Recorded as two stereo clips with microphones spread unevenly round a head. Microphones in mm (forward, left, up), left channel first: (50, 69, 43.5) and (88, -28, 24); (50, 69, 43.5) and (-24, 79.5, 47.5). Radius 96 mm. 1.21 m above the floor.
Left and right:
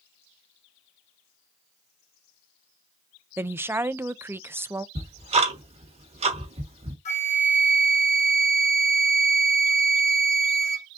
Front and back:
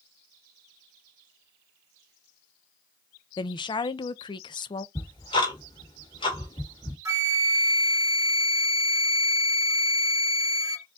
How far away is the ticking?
About 1.5 m.